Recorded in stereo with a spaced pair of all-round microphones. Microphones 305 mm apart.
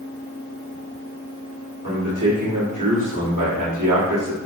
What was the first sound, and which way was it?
A man speaking, 80° right.